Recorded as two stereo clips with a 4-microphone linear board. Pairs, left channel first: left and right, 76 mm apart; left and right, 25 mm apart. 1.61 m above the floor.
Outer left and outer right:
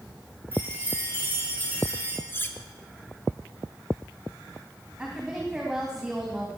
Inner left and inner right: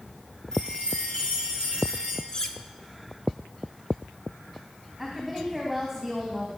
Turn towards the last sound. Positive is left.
turn(degrees=-5)  # may be behind; listen again after turning